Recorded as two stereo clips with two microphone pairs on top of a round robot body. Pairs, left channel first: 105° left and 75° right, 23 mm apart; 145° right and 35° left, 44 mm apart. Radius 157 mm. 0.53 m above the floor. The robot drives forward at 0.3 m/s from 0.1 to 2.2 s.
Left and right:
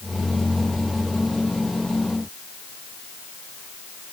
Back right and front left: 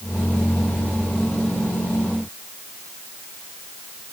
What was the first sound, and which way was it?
Only background noise.